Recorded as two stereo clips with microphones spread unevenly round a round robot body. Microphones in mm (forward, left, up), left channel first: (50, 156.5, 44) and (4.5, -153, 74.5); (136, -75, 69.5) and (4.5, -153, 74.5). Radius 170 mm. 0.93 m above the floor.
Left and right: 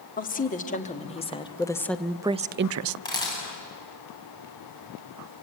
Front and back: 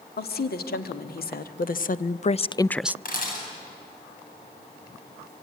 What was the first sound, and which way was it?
A woman speaking, 20° left.